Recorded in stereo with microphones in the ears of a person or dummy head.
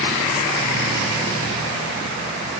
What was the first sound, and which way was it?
Only background noise.